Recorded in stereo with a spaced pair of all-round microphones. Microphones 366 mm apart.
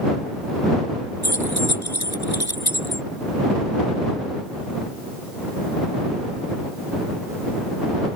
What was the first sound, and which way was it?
Keys jangling, 80° left.